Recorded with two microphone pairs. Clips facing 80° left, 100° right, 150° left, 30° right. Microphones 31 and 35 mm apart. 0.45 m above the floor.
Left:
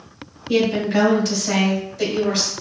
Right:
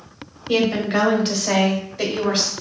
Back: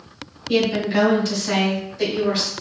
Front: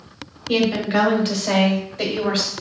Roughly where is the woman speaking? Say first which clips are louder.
Left 1 dB, even; right.